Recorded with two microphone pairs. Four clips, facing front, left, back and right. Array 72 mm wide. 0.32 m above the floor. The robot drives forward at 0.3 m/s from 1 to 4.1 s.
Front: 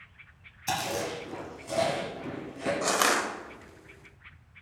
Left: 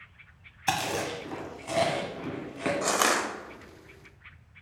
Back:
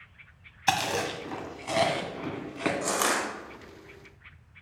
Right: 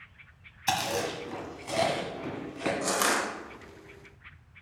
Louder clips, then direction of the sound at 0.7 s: Even, back 4 dB; 170° left.